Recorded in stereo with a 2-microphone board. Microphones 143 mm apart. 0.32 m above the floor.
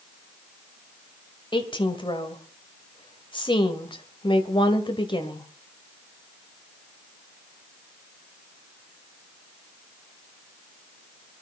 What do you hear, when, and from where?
1.5 s a woman speaking: 35° left (ahead or behind), 1.7 m